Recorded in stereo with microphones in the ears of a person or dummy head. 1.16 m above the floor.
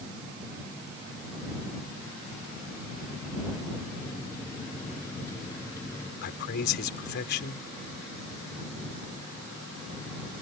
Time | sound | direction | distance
4.0 | a microwave | 15° left (ahead or behind) | ?
6.2 | a man speaking | 55° left (ahead or behind) | ?